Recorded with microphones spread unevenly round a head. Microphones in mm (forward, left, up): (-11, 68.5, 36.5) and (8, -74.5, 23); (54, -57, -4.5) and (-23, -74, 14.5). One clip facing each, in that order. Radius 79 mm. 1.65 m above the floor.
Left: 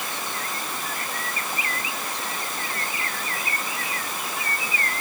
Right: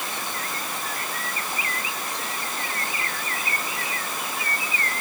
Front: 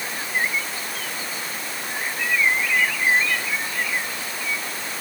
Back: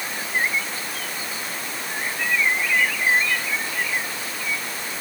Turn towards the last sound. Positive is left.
No sound to turn to.